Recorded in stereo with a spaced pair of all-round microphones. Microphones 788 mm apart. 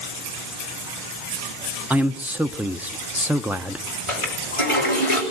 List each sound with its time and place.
1.9 s a man speaking: centre (ahead or behind), 0.7 m
4.1 s a toilet flushing: 40° left (ahead or behind), 6.5 m